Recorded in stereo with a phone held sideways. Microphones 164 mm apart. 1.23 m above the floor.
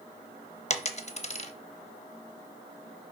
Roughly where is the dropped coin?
Left.